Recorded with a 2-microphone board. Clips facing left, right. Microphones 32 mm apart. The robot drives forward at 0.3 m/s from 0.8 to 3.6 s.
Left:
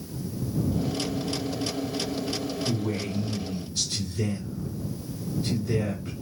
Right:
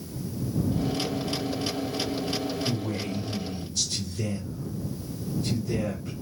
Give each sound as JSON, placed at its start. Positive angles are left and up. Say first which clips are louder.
{"t": 2.6, "sound": "a man speaking", "louder": "left 1 dB", "side_deg": 30, "distance_m": 1.6}